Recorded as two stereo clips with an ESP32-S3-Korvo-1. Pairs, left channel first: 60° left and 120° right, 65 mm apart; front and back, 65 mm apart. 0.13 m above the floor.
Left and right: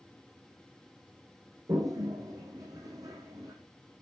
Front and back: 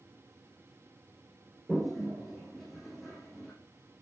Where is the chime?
I don't hear a chime.